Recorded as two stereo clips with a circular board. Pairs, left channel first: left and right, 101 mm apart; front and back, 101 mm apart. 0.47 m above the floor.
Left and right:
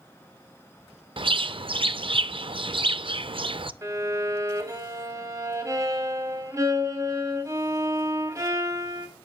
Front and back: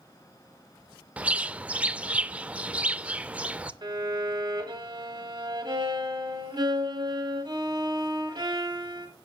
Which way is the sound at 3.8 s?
145° right.